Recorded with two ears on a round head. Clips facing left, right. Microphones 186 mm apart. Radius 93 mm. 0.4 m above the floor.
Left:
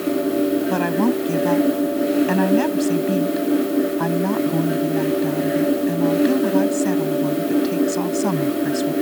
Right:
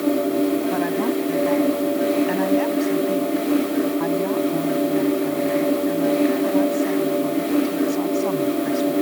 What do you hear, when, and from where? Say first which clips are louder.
0.7 s a woman speaking: left 2 dB; 65° left (ahead or behind)